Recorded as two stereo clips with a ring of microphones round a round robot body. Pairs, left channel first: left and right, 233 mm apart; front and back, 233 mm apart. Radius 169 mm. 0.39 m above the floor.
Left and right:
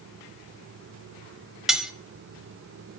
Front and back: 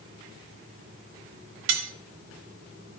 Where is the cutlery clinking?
Straight behind, 1.2 m.